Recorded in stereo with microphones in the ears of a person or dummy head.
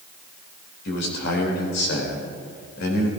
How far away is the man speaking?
About 4 m.